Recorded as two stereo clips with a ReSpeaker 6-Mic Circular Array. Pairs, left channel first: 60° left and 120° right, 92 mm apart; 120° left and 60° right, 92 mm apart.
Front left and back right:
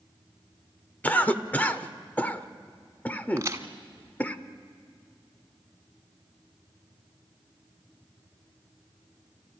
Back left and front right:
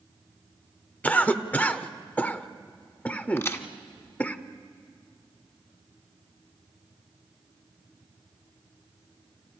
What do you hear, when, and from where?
1.0 s a cough: 90° left, 0.8 m
3.4 s a crack: straight behind, 1.2 m